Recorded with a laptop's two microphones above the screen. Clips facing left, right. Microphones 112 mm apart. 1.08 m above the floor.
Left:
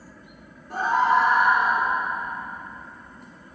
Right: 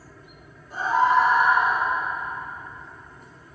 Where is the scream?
65° left (ahead or behind), 2.5 m; by 1.9 s 85° left, 3 m.